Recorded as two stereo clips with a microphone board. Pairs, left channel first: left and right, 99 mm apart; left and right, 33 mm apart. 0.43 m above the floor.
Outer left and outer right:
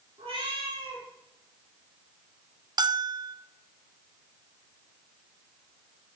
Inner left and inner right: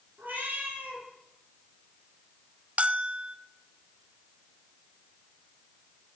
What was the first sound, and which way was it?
A cat meowing, 65° right (ahead or behind).